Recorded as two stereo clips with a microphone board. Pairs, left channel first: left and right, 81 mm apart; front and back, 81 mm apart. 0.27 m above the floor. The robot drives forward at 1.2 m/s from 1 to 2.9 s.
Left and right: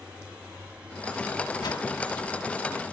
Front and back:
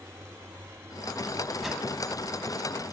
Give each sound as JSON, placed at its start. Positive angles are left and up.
{"t": 1.6, "sound": "a whoosh", "azimuth_deg": 90, "distance_m": 0.8}